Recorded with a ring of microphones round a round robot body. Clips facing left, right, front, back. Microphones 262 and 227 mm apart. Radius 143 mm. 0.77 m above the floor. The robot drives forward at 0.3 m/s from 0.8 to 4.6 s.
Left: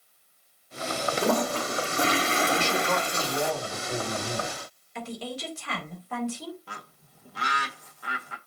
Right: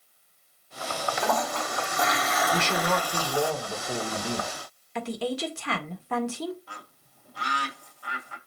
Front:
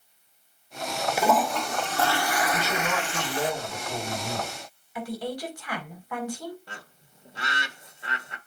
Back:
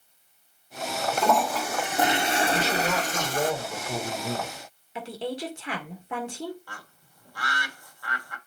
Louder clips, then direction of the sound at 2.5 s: Even, back 2 dB; 105° right.